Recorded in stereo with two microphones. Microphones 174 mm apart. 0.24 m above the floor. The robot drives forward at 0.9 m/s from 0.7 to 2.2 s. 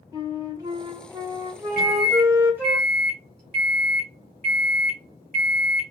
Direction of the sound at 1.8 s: 55° left (ahead or behind).